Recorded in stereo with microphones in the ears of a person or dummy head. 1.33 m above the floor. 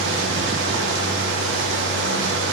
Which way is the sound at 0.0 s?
70° right (ahead or behind).